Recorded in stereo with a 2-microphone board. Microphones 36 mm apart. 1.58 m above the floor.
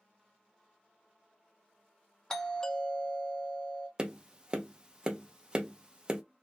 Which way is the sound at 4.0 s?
25° right (ahead or behind).